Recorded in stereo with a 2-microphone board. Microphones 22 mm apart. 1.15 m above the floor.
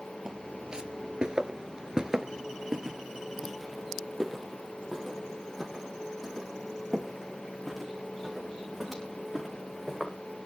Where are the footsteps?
35° right (ahead or behind), 1.6 m; by 10.2 s 5° left (ahead or behind), 6.5 m.